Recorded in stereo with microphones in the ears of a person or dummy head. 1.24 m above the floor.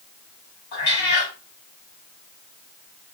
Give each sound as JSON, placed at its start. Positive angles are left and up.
{"t": 0.7, "sound": "a cat meowing", "side_deg": 50, "distance_m": 1.3}